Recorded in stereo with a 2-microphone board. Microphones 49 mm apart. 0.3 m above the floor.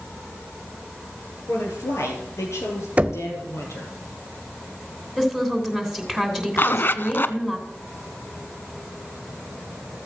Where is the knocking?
30° right (ahead or behind), 0.9 m.